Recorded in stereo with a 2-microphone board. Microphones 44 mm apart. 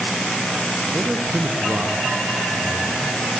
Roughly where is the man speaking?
Right.